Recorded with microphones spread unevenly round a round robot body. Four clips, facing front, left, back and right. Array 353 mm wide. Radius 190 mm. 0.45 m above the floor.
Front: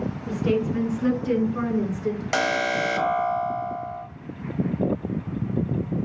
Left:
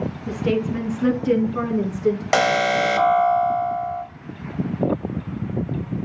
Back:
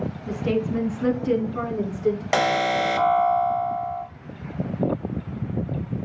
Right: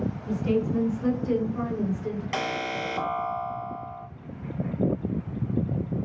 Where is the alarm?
110° left, 1.6 m.